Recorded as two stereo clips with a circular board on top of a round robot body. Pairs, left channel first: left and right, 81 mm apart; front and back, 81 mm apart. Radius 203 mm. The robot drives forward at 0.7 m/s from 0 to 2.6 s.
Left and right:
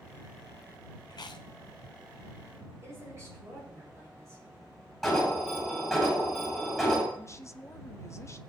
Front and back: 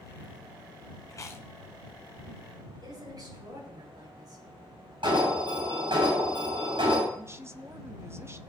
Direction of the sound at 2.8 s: 145° right.